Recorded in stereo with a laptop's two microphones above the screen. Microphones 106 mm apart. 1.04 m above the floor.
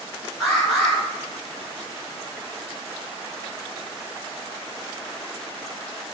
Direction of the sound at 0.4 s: Centre (ahead or behind).